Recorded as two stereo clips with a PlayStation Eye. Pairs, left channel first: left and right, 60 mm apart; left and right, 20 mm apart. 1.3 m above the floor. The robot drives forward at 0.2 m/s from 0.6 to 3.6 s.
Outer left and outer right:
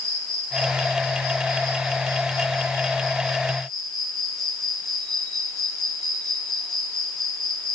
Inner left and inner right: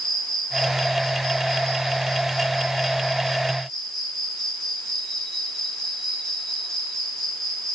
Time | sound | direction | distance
0.0 | an insect | 5° left (ahead or behind) | 6 m